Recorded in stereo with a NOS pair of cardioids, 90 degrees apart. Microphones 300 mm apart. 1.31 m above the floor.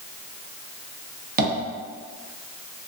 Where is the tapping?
30° right, 0.7 m.